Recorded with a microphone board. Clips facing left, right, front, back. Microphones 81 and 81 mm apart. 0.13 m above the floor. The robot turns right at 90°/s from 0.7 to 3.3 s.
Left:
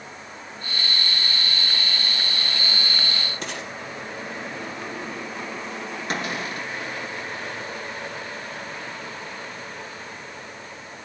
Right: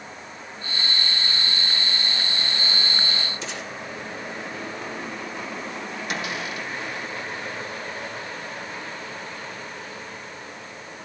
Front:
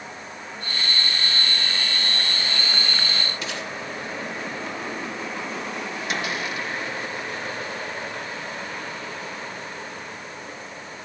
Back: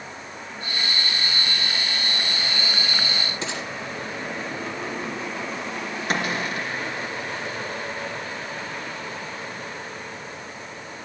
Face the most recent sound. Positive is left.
turn(degrees=135)